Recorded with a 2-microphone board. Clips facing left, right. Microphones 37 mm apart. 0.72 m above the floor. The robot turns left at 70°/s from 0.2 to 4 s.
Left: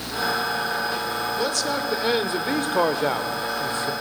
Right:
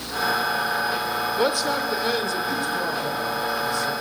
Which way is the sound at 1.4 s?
150° right.